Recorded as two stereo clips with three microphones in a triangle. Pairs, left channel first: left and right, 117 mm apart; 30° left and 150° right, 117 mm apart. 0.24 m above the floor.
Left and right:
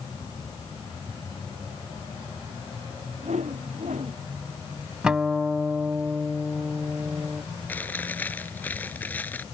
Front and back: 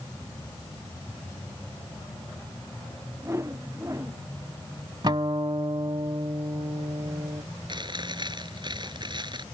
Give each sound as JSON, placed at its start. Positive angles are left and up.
{"t": 3.2, "sound": "a whoosh", "azimuth_deg": -85}
{"t": 5.0, "sound": "a guitar", "azimuth_deg": -170}
{"t": 7.7, "sound": "chewing", "azimuth_deg": 165}